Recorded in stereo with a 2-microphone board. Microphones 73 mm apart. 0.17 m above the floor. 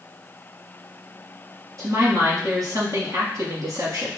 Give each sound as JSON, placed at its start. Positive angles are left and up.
{"t": 1.8, "sound": "a woman speaking", "side_deg": -55, "distance_m": 2.0}